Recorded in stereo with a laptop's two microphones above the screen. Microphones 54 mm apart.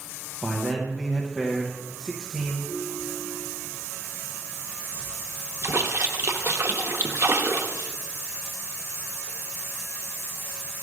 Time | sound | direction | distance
0.4 | a man speaking | 5° left (ahead or behind) | 0.7 m
2.6 | a ringtone | centre (ahead or behind) | 3.5 m
5.6 | a splash | 55° right (ahead or behind) | 0.7 m